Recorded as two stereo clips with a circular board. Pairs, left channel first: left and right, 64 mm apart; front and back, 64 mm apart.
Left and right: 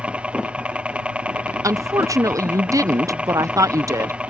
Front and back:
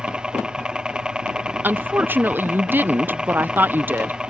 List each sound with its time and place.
0.0 s a helicopter: 125° right
1.6 s a woman speaking: 120° right